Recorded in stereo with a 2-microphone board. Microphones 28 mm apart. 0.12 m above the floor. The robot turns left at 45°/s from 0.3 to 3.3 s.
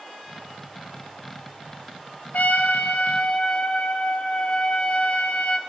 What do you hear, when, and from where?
2.3 s a trumpet: 95° left, 0.6 m; by 5.6 s 50° left, 0.6 m